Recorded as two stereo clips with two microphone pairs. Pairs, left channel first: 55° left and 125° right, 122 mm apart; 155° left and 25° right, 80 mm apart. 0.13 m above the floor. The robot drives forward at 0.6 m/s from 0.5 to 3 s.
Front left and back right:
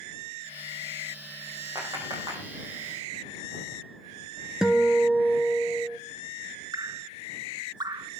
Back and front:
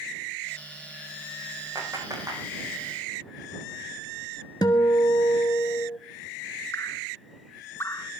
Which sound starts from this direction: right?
A clap, at 1.8 s.